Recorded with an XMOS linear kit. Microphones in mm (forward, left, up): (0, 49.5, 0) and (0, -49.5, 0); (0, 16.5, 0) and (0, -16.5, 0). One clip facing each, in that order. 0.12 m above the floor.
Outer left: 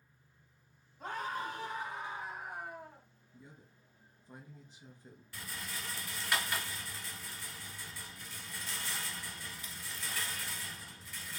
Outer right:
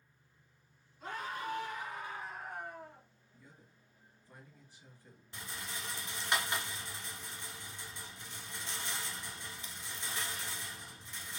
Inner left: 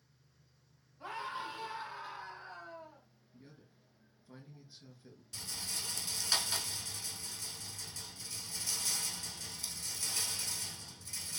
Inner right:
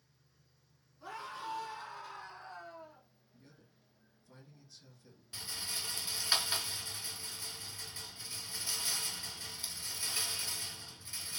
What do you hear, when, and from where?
1.0 s a scream: 50° left (ahead or behind), 3 m; by 3.0 s centre (ahead or behind), 2.5 m
3.3 s a man speaking: 20° left (ahead or behind), 1.8 m
5.3 s a rattle: 25° right (ahead or behind), 1.1 m